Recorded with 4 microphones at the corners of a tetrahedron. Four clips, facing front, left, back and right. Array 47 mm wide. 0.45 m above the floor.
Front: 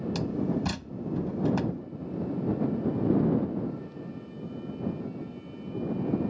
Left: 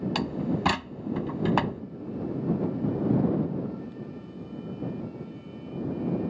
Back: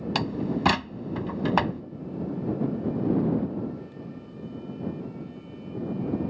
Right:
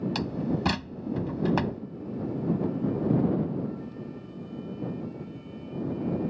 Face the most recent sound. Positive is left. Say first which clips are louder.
# left 1 dB, back 3 dB
turn(degrees=155)